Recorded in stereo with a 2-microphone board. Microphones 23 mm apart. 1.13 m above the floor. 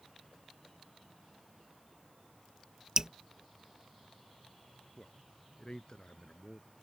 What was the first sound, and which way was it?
Dripping, 30° right (ahead or behind).